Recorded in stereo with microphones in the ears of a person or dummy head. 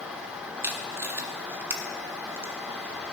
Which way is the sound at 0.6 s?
15° right (ahead or behind).